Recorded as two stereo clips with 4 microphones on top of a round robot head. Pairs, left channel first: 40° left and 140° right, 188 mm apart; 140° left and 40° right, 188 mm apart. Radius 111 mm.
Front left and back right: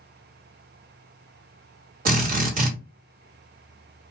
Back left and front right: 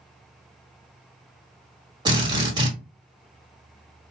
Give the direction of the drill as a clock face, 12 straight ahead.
4 o'clock.